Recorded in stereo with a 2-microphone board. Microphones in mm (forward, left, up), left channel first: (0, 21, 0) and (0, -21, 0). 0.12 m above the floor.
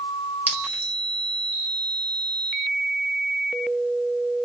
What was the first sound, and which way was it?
A clink, 45° right (ahead or behind).